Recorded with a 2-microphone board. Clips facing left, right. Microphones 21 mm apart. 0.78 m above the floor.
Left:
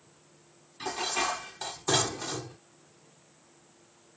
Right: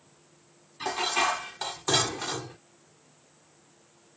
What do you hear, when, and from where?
0.8 s dishes clattering: 20° right (ahead or behind)